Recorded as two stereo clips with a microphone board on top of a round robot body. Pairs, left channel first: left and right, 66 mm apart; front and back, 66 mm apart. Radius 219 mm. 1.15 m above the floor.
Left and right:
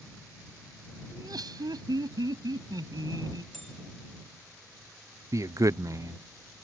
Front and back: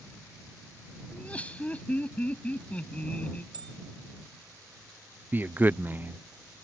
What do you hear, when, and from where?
1.1 s laughter: 70° right
3.5 s a bell: straight behind
5.3 s a man speaking: 115° right